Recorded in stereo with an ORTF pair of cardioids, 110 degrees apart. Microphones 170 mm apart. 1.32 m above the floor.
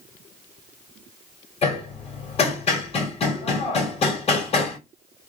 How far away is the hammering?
About 1.7 m.